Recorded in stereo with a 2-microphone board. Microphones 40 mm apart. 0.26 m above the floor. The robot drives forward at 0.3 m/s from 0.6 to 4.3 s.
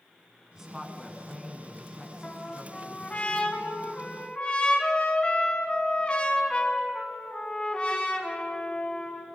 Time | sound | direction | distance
0.5 | a woman speaking | 10° right (ahead or behind) | 3 m
2.2 | a trumpet | 35° left (ahead or behind) | 2.5 m